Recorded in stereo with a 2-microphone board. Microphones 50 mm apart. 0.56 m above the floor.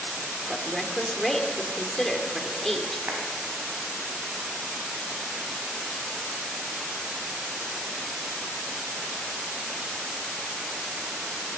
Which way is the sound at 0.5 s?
5° left (ahead or behind).